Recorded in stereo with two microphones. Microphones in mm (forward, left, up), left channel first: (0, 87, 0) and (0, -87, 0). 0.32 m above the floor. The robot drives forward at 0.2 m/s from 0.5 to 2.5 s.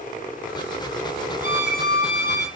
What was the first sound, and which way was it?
A violin, 65° left (ahead or behind).